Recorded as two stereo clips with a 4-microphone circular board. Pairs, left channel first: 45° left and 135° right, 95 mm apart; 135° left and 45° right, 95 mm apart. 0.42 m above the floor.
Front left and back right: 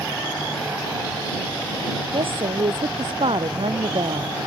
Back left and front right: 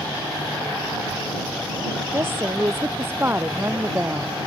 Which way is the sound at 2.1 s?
110° right.